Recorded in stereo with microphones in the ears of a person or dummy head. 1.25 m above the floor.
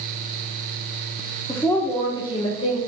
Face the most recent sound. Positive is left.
turn(degrees=30)  # may be behind; listen again after turning